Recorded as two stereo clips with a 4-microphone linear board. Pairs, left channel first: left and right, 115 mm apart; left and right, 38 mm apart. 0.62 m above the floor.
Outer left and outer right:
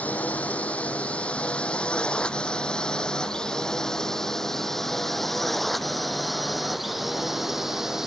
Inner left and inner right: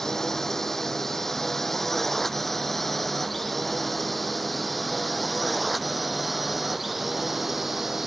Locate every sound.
0.0 s a drone: 15° left (ahead or behind); by 8.1 s 5° right (ahead or behind)